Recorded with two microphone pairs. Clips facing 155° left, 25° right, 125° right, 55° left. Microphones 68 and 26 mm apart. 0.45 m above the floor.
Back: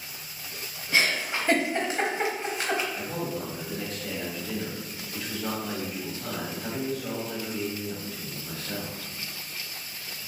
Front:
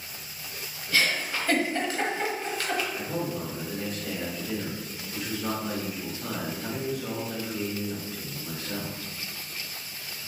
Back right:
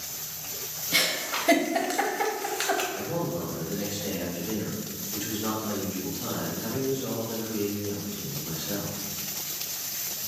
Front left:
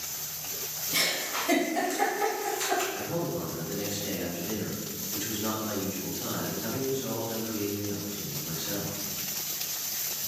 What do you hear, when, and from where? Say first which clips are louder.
0.9 s a giggle: back 1 dB, back right 3 dB; 135° right, 0.7 m
2.9 s a man speaking: front 1 dB, back right 1 dB; 70° right, 1.5 m